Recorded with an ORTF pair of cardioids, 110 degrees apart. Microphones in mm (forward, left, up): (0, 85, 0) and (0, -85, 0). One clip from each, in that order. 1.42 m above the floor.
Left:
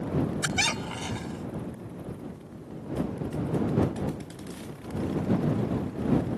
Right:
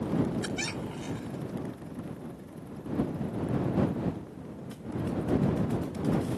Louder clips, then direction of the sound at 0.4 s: Left 7 dB; 50° left.